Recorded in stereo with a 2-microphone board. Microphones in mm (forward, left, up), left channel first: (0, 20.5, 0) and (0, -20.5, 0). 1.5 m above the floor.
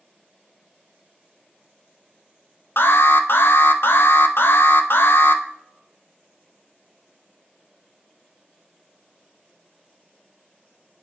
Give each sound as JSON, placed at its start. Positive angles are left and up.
{"t": 2.8, "sound": "an alarm", "side_deg": 65, "distance_m": 0.6}